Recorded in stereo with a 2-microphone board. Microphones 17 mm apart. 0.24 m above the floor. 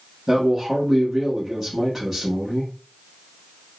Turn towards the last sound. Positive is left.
turn(degrees=-20)  # may be behind; listen again after turning